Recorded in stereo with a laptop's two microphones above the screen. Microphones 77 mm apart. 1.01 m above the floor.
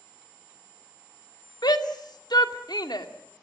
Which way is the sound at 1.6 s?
65° left (ahead or behind).